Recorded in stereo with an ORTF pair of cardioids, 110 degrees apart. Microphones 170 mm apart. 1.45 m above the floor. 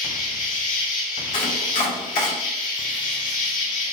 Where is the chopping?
60° left, 1.5 m.